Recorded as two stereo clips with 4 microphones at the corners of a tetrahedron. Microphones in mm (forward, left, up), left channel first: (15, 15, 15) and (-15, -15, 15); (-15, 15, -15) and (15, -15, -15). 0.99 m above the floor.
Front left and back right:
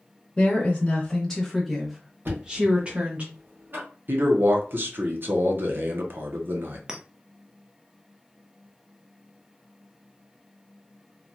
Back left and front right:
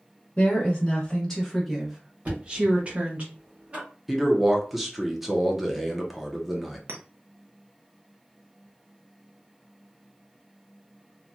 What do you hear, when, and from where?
0.4 s a woman speaking: 95° left, 1.0 m; by 3.2 s 85° right, 1.1 m
2.2 s knocking: 100° right, 1.5 m
4.1 s a man speaking: 130° right, 0.8 m
6.9 s a clink: 60° right, 0.6 m